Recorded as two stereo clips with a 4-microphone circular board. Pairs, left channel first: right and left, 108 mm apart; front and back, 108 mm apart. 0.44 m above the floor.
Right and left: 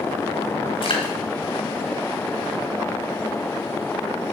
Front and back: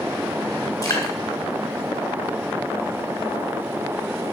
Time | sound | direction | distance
0.8 | dripping | 60° right | 4 m